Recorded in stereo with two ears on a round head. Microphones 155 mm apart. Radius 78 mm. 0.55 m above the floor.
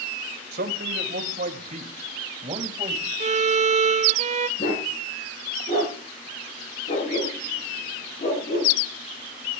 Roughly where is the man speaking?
Right.